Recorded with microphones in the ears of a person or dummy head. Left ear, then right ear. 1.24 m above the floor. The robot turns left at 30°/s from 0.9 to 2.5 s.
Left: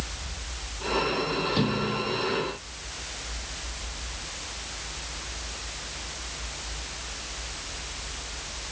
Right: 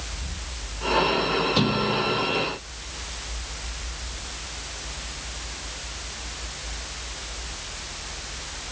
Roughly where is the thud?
Right.